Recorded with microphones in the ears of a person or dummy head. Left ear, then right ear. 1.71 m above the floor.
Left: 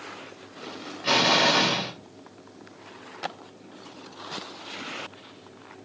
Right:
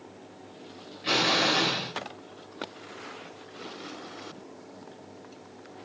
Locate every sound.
1.0 s an explosion: 10° left (ahead or behind), 1.2 m